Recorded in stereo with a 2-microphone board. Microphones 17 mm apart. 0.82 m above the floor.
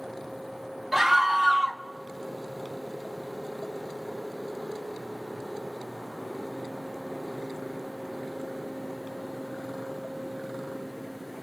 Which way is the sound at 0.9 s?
20° right (ahead or behind).